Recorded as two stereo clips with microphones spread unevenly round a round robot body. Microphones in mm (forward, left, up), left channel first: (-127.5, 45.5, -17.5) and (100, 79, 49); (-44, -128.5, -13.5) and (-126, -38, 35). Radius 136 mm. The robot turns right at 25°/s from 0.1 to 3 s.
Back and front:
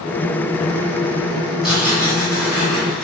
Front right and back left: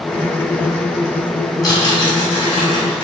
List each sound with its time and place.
1.6 s tearing paper: 90° right, 1.9 m; by 3.0 s 55° right, 1.9 m